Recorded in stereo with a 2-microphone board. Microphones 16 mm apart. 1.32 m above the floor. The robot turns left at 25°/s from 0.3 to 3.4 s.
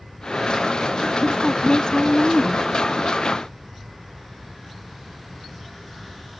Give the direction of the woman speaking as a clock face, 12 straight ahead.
10 o'clock.